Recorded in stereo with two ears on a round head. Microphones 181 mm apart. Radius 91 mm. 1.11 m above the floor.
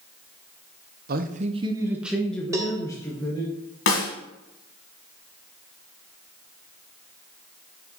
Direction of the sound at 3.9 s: 65° left (ahead or behind).